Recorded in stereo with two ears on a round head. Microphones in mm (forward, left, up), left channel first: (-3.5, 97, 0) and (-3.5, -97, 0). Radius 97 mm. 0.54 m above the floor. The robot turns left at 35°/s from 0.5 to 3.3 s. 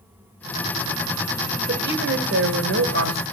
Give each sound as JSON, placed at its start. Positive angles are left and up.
{"t": 1.7, "sound": "a woman speaking", "azimuth_deg": -45, "distance_m": 1.8}